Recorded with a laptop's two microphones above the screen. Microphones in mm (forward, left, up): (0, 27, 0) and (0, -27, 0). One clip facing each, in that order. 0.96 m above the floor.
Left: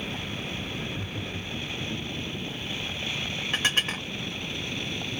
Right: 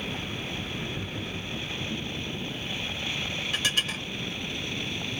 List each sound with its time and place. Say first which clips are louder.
0.8 s laughter: even; 5° right (ahead or behind), 1.7 m
3.5 s dishes clattering: left 3 dB; 35° left (ahead or behind), 0.6 m